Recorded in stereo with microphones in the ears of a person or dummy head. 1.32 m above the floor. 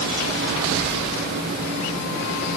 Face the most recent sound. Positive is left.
No sound to turn to.